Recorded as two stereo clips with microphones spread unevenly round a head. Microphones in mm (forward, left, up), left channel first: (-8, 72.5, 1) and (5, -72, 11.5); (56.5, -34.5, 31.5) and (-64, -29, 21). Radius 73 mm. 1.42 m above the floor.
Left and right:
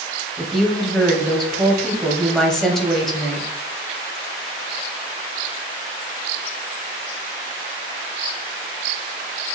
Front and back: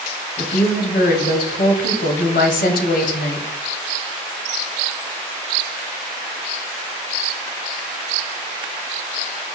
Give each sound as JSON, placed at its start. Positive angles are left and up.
{"t": 0.4, "sound": "a woman speaking", "azimuth_deg": 5, "distance_m": 0.6}